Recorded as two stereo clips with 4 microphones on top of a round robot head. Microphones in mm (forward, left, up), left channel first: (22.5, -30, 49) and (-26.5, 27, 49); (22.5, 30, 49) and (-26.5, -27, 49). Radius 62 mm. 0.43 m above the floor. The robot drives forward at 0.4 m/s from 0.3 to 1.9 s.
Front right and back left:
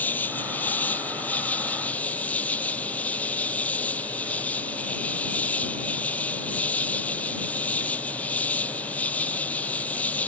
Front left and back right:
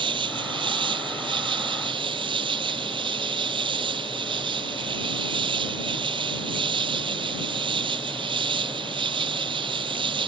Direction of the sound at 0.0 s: 120° right.